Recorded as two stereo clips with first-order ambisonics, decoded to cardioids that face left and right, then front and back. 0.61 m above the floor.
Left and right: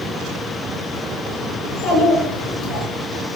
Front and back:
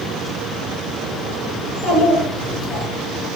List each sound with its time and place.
1.6 s a child speaking: 35° left, 6 m